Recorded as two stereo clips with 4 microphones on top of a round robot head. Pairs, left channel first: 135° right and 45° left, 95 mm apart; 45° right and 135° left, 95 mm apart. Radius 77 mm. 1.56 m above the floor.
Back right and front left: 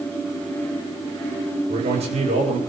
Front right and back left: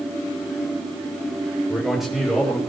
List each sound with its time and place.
1.7 s a man speaking: 45° left, 8 m